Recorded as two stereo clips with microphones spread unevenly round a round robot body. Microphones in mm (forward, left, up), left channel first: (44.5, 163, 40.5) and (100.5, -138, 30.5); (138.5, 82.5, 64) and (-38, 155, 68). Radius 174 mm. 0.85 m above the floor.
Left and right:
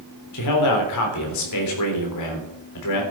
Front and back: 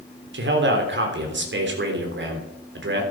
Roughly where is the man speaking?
Behind left.